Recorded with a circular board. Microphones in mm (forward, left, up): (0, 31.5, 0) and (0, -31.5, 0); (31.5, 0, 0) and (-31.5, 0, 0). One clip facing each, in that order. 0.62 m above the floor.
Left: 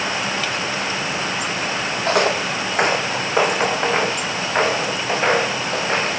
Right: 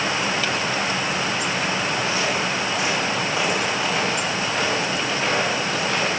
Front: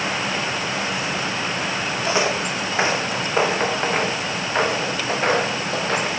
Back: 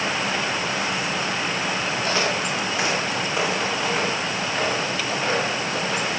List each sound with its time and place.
2.1 s footsteps: 70° left, 2 m; by 6.2 s 35° left, 6 m